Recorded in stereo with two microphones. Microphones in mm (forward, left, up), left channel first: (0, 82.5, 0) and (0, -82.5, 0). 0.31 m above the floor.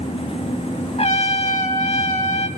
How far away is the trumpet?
About 1.4 m.